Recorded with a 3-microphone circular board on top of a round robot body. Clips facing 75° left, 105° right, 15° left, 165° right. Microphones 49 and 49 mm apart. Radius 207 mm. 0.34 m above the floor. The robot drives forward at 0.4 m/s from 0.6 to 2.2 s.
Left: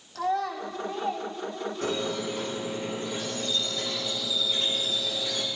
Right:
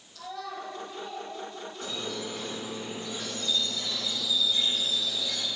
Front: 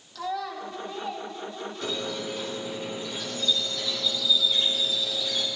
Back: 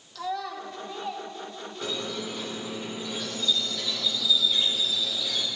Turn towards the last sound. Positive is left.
turn(degrees=110)